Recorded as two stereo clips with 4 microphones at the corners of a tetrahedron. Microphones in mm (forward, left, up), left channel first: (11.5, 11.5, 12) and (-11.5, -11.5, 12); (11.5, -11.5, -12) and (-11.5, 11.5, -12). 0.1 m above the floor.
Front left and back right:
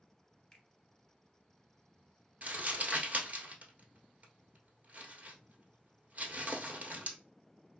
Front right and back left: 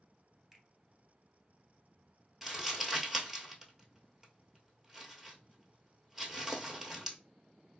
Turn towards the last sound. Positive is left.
turn(degrees=-145)